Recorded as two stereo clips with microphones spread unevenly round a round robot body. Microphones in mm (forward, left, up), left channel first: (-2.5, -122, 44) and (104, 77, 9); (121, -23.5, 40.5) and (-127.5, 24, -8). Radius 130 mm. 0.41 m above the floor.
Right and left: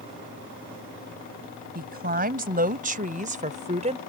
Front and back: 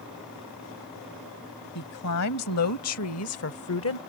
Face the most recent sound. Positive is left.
turn(degrees=15)